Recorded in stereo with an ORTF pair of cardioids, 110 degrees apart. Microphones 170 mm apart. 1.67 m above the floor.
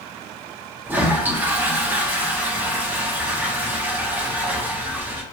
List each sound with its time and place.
0.8 s a toilet flushing: 10° right, 1.0 m